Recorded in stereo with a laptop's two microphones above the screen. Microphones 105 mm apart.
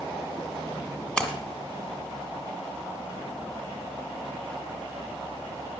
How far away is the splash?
About 1.4 m.